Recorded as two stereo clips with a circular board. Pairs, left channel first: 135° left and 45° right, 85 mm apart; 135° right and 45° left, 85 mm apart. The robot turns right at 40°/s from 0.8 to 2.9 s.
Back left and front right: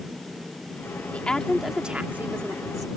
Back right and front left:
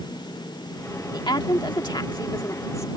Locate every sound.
1.1 s a woman speaking: 155° right; by 2.9 s 85° right